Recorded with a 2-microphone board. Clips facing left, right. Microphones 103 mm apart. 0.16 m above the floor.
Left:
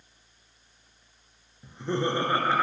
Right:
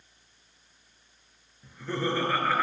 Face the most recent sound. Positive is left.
turn(degrees=20)  # may be behind; listen again after turning